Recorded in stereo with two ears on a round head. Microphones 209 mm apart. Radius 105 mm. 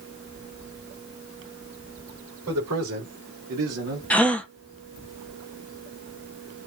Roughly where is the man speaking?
Right.